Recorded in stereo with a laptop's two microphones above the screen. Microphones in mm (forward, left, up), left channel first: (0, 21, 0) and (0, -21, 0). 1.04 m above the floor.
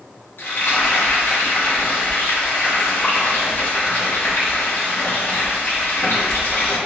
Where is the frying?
60° left (ahead or behind), 0.8 m.